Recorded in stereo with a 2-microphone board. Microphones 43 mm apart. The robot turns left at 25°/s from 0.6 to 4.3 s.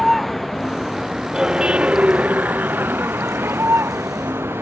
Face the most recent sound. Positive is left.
turn(degrees=-90)